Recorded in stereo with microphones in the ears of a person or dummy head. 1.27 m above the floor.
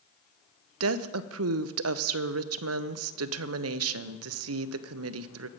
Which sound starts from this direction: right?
A woman speaking, at 0.8 s.